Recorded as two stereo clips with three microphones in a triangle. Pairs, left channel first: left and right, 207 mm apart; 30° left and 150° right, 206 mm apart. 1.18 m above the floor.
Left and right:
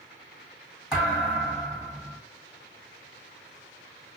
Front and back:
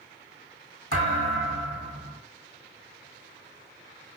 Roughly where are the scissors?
No scissors in this recording.